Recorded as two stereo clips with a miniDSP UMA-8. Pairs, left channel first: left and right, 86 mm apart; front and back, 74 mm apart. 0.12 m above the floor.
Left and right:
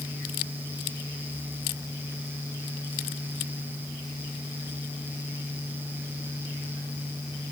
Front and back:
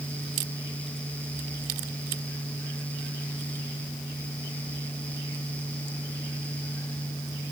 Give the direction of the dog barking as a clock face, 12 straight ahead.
No dog barking in this recording.